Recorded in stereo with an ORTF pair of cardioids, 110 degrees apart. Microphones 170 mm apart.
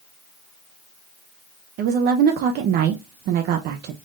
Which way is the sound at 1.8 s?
70° right.